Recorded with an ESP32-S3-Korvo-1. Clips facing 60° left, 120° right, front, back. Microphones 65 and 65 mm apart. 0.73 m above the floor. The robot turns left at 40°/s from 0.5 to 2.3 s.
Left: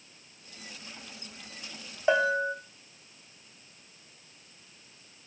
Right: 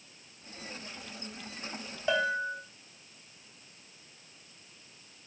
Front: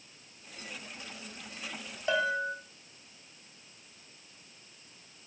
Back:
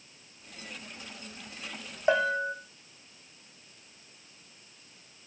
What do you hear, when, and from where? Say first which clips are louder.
2.1 s a bell: left 4 dB, back 4 dB; 125° left, 1.0 m; by 2.5 s 115° left, 1.0 m